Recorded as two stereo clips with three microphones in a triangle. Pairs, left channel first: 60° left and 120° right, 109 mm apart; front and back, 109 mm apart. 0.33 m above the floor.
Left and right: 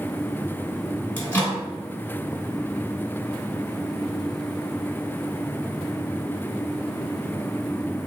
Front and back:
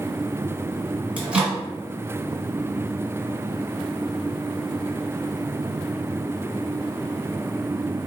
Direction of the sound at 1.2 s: 115° left.